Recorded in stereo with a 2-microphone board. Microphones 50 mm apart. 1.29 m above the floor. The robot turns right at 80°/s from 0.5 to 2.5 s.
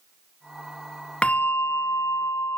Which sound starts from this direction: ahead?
A bell, at 1.2 s.